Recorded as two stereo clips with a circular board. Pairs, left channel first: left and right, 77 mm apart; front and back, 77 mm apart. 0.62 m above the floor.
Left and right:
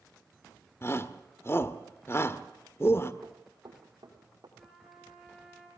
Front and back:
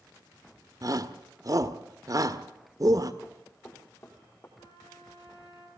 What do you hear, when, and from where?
0.8 s a shout: 145° left, 1.6 m
3.2 s running footsteps: 60° right, 6 m; by 4.5 s 55° right, 7.5 m
4.6 s a trumpet: straight ahead, 8.5 m